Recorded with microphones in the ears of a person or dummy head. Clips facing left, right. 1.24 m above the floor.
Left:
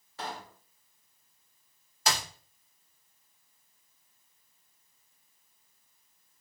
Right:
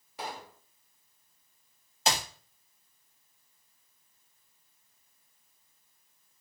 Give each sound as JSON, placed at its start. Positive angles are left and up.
{"t": 0.2, "sound": "a pop", "side_deg": -10, "distance_m": 1.1}
{"t": 2.1, "sound": "a clap", "side_deg": -25, "distance_m": 1.4}